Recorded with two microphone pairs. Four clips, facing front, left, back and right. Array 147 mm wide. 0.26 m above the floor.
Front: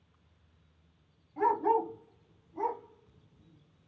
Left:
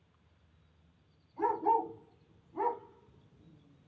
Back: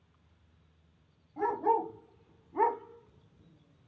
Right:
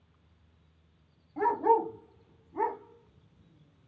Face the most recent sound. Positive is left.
turn(degrees=145)